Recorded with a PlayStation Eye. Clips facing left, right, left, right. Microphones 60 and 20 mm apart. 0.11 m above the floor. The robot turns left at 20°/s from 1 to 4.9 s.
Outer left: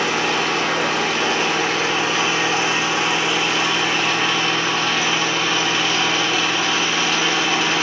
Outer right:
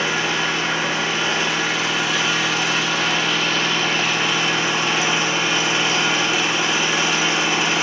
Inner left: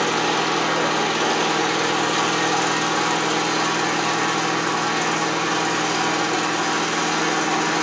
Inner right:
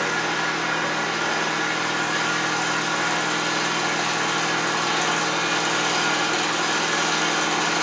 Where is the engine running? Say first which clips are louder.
Outer left 1 dB, inner left 3 dB; 65° left, 0.9 m; by 7.8 s 15° right, 0.9 m.